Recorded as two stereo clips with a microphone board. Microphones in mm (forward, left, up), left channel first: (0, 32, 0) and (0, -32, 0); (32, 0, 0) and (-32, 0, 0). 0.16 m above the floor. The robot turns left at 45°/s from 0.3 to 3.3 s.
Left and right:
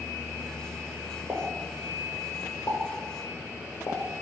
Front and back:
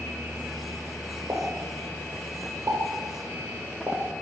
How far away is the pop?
About 1.1 m.